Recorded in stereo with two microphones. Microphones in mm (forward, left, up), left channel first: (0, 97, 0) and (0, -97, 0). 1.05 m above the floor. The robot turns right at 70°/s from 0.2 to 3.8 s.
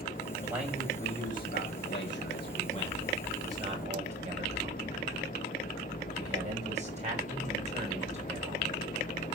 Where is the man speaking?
20° right (ahead or behind), 6.5 m; by 8.7 s 40° right (ahead or behind), 6.5 m.